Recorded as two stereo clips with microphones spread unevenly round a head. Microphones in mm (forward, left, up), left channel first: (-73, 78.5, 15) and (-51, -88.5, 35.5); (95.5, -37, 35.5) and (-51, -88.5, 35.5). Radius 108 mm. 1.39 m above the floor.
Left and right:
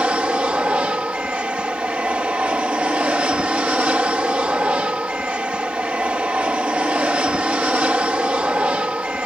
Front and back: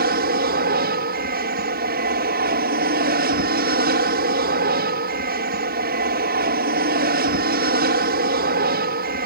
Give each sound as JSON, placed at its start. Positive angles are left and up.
{"t": 0.0, "sound": "an aircraft", "azimuth_deg": -165}